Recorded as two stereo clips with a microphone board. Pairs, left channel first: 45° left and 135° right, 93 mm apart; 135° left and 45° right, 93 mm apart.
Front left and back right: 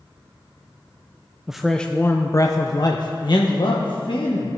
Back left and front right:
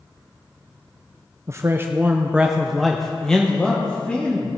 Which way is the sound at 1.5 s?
60° right.